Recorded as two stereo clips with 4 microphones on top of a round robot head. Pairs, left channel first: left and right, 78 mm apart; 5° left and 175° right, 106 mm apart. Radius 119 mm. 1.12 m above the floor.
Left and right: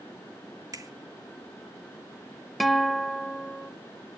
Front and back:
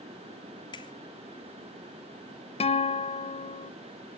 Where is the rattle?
I don't hear a rattle.